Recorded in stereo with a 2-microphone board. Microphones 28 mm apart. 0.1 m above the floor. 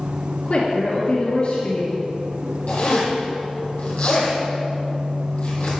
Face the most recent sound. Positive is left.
turn(degrees=55)  # may be behind; listen again after turning